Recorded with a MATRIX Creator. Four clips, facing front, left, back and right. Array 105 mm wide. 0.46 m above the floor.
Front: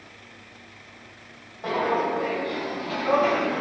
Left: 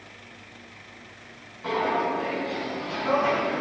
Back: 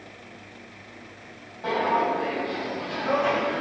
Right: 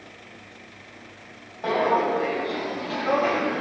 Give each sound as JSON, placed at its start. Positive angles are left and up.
{"t": 1.6, "sound": "footsteps", "azimuth_deg": -80, "distance_m": 1.1}